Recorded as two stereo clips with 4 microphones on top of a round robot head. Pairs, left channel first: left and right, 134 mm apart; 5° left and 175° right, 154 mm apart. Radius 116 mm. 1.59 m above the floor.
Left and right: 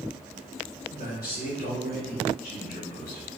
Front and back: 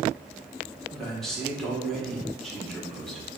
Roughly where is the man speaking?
Left.